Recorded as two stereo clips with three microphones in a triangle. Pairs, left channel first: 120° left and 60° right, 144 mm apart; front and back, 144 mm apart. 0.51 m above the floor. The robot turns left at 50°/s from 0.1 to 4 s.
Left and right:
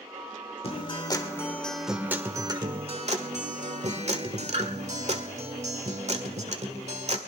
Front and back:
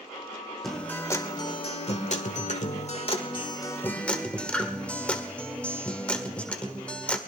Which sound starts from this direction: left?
A guitar, at 0.6 s.